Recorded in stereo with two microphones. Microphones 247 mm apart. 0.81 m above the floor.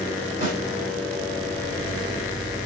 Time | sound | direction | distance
0.4 | a snare drum | 35° right (ahead or behind) | 2 m